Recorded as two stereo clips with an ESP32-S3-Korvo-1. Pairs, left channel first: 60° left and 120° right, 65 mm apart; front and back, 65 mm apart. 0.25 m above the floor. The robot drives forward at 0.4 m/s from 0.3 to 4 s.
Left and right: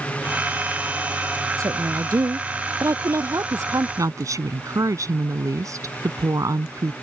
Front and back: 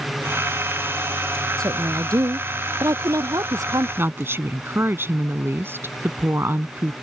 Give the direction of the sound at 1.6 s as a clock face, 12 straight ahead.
5 o'clock.